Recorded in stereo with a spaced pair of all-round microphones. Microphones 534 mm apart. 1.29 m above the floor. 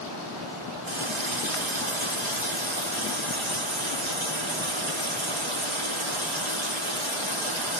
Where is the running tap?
60° right (ahead or behind), 1.4 m.